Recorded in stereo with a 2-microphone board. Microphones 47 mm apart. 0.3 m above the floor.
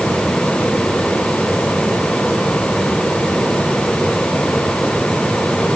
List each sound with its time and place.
Only background noise.